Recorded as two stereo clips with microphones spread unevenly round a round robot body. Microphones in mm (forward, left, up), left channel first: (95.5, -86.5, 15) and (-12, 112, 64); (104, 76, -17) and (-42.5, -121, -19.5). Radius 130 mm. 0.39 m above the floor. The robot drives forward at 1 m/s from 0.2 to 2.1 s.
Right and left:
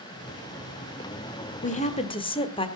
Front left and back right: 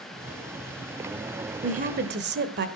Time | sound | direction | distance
1.6 | a woman speaking | 75° right | 1.3 m